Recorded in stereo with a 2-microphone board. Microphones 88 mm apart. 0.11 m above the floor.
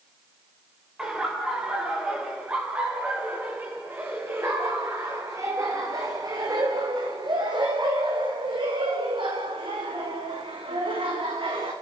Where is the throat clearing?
No throat clearing in this recording.